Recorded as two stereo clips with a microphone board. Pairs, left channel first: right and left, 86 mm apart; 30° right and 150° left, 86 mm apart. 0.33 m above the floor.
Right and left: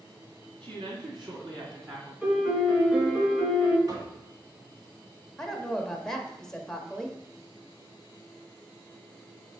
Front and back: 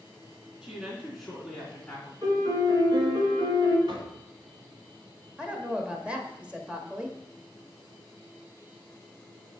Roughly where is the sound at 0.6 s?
Left.